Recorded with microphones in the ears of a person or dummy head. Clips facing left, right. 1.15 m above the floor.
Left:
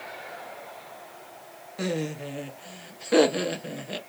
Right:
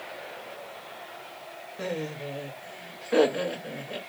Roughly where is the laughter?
Left.